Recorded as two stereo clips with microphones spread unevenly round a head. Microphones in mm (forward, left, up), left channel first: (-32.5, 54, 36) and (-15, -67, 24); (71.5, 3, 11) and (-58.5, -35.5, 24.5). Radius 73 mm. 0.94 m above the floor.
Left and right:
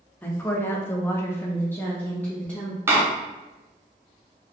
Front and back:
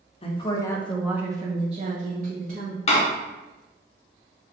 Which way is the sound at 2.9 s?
15° right.